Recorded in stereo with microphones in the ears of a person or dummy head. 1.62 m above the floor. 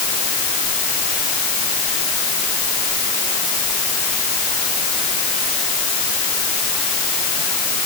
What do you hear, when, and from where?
Only background noise.